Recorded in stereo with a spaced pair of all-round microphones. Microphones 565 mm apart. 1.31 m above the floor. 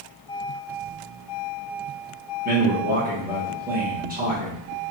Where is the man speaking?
15° right (ahead or behind), 1.3 m.